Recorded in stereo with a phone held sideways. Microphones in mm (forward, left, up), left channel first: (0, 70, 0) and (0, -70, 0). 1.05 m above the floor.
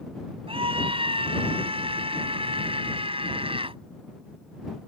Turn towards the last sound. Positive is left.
turn(degrees=-40)  # may be behind; listen again after turning